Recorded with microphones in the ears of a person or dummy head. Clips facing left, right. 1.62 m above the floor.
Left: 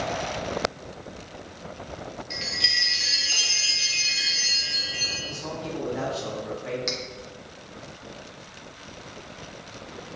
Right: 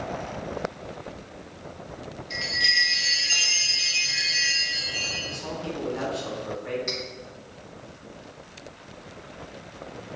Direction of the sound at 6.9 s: 65° left (ahead or behind).